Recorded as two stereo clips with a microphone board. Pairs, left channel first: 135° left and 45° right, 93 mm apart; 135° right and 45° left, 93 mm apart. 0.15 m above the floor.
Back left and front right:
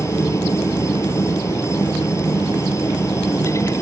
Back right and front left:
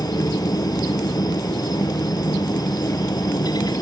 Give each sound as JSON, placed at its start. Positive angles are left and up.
{"t": 0.0, "sound": "a helicopter", "azimuth_deg": -170}